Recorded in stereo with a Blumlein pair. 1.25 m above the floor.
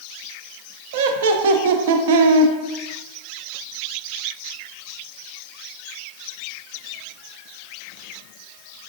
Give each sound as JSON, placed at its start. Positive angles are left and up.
{"t": 0.9, "sound": "laughter", "azimuth_deg": -55, "distance_m": 0.5}